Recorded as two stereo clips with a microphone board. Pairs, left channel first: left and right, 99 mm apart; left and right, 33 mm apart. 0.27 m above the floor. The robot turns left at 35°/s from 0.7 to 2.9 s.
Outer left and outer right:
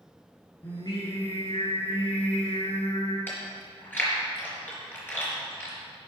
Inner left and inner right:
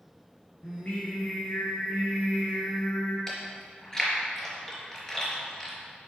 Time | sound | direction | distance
0.6 | singing | 140° left | 4 m
3.3 | chewing | 20° left (ahead or behind) | 4 m